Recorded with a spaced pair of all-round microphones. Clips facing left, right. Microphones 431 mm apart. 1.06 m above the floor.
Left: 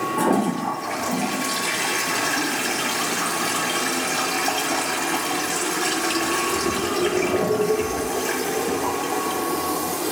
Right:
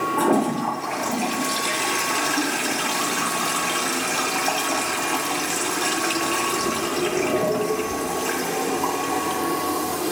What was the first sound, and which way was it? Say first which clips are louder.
A toilet flushing: right 1 dB; 40° left (ahead or behind).